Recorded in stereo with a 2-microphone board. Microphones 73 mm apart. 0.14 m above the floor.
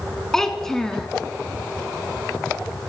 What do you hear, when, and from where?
0.3 s a child speaking: 5° left (ahead or behind), 0.6 m